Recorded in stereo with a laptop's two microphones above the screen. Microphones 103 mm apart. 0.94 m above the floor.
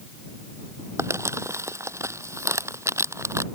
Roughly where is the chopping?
I don't hear chopping.